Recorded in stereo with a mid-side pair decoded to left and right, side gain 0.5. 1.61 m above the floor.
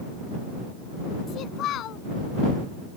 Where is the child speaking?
65° left.